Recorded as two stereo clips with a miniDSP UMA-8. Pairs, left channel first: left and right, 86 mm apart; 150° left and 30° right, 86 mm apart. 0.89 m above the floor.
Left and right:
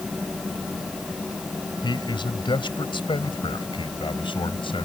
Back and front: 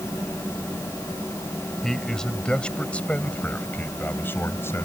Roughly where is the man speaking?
Ahead left.